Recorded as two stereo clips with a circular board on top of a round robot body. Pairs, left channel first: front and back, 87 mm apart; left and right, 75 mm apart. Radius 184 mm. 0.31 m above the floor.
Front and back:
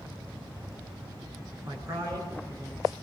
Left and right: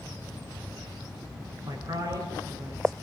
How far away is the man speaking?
About 7.5 m.